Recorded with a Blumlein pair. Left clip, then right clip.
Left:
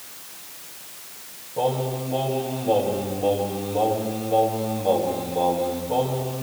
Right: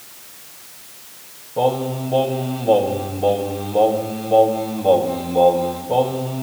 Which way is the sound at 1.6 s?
70° right.